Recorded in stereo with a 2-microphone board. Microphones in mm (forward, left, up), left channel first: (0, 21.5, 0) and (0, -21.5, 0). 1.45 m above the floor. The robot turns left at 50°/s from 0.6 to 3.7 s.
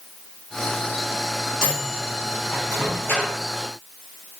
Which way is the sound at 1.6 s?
15° right (ahead or behind).